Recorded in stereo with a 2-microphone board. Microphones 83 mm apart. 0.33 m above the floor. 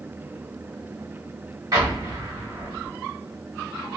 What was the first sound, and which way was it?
An explosion, 40° right (ahead or behind).